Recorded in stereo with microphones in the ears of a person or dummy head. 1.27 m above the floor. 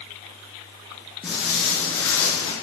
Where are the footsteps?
5° right (ahead or behind), 1.4 m; by 2.5 s 20° left (ahead or behind), 1.2 m.